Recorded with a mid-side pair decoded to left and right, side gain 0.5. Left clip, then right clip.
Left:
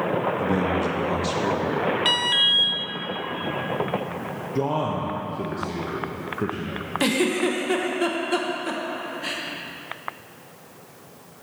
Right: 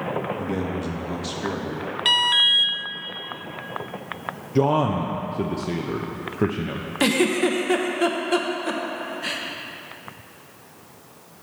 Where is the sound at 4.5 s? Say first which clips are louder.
Right 5 dB; 35° right, 0.7 m.